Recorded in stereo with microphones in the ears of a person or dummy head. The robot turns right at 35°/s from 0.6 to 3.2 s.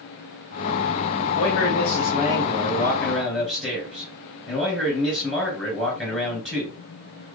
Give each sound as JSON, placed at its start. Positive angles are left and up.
{"t": 1.4, "sound": "a man speaking", "azimuth_deg": 115, "distance_m": 3.5}